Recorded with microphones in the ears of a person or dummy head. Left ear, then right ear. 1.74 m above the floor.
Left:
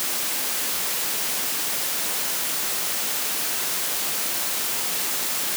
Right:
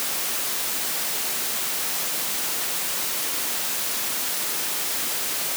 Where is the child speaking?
No child speaking in this recording.